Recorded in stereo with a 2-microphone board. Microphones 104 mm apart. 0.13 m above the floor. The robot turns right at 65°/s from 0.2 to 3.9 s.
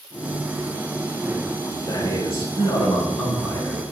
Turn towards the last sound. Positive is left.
turn(degrees=165)